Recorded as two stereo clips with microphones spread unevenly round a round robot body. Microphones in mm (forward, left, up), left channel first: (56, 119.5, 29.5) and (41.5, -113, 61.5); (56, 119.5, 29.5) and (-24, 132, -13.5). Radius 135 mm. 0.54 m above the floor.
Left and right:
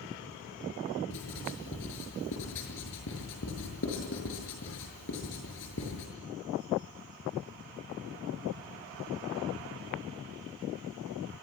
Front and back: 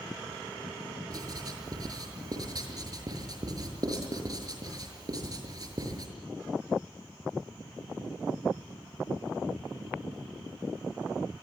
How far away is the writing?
About 6.5 m.